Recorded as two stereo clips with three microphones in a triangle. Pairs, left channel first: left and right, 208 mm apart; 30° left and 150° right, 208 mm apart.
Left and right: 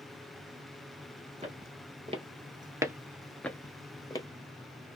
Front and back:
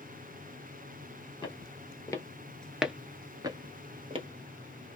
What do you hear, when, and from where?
1.4 s footsteps: 35° right, 1.2 m; by 4.3 s 155° left, 1.0 m